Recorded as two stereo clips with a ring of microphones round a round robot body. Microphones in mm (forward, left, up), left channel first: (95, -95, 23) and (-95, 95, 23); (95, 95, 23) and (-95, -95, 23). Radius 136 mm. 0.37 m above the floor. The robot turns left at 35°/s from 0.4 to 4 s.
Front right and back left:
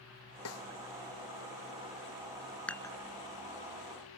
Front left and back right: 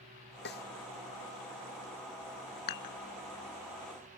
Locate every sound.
0.5 s a snare drum: 5° right; by 0.7 s 15° right
2.7 s dishes clattering: 40° left; by 2.9 s 30° left